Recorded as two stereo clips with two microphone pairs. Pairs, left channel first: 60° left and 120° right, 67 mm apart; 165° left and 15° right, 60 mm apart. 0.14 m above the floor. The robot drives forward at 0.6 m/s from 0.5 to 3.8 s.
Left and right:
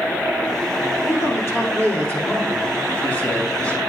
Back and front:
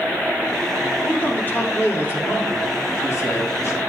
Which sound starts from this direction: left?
A man speaking, at 1.0 s.